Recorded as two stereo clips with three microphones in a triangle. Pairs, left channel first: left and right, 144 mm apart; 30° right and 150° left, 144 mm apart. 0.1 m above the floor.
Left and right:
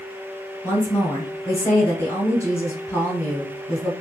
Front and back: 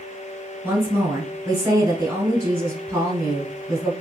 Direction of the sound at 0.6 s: 115° left.